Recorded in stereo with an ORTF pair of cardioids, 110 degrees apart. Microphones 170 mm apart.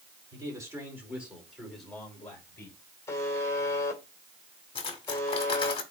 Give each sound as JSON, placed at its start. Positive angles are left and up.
{"t": 0.3, "sound": "a man speaking", "azimuth_deg": -20, "distance_m": 4.0}
{"t": 3.1, "sound": "a buzzer", "azimuth_deg": 15, "distance_m": 2.5}
{"t": 4.8, "sound": "cutlery clinking", "azimuth_deg": 35, "distance_m": 1.8}